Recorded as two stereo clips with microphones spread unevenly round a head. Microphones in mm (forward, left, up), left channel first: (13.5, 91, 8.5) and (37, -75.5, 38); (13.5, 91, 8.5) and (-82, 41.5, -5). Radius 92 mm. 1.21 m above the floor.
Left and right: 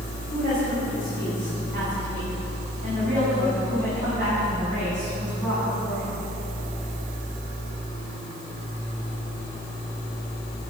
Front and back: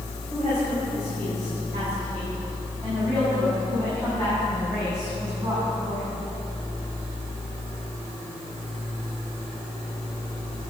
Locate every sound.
0.3 s a woman speaking: 75° right, 5 m; by 6.2 s 50° right, 7 m